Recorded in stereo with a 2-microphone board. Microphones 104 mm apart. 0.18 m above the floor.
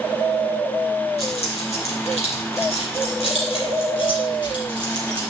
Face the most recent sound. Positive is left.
turn(degrees=40)  # may be behind; listen again after turning